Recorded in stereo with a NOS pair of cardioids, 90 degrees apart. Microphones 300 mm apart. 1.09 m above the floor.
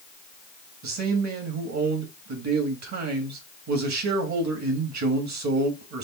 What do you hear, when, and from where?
0.8 s a man speaking: 60° right, 1.7 m